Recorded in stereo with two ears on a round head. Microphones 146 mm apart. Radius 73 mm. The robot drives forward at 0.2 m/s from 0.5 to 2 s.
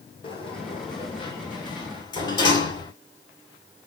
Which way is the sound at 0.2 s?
30° left (ahead or behind).